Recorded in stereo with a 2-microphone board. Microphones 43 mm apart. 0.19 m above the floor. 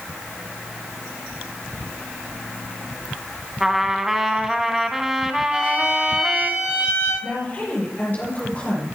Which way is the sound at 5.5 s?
30° right (ahead or behind).